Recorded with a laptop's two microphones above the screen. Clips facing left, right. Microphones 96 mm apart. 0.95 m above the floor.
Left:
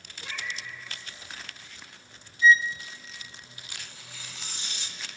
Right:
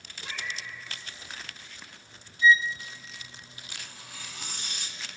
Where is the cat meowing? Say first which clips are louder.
Even; 10° right (ahead or behind), 5.5 m.